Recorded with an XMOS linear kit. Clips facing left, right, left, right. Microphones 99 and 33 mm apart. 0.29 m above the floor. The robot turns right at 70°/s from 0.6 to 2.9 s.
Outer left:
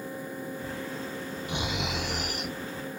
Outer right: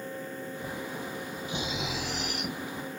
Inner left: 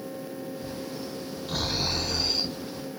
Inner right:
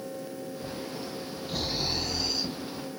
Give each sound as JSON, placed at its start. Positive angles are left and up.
{"t": 1.5, "sound": "snoring", "azimuth_deg": 70, "distance_m": 1.7}